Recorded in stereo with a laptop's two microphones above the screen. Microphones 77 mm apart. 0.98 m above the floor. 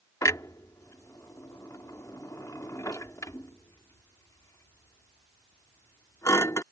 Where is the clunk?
45° left (ahead or behind).